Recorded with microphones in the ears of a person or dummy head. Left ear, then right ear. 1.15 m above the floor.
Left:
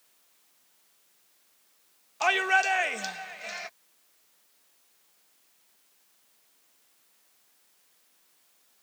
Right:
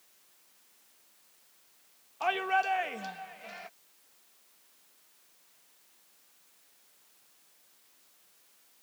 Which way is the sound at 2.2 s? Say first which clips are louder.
Left 5 dB; 70° left (ahead or behind).